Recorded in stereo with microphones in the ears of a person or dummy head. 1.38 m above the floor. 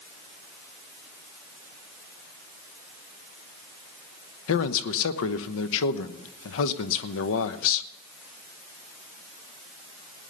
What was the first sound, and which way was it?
A man speaking, 70° left (ahead or behind).